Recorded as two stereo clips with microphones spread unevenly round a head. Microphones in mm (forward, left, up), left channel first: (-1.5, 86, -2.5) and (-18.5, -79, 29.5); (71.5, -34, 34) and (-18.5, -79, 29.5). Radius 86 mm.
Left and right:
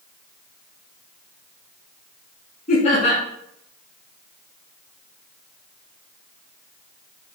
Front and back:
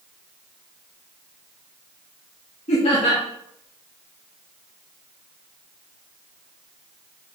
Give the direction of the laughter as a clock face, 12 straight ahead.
11 o'clock.